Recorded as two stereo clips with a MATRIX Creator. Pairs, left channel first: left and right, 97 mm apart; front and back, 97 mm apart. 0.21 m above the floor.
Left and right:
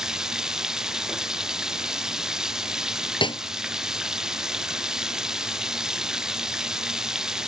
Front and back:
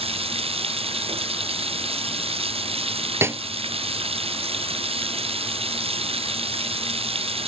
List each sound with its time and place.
0.0 s running water: 175° right
3.2 s a snare drum: 115° left